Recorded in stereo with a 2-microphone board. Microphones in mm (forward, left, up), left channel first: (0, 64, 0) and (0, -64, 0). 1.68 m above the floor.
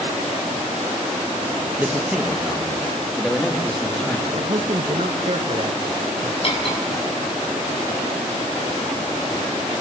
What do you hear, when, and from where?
1.8 s a man speaking: 15° right (ahead or behind), 2 m; by 4.2 s 5° left (ahead or behind), 4.5 m
4.3 s a man speaking: 55° right (ahead or behind), 1.8 m
6.4 s cutlery clinking: 45° left (ahead or behind), 7 m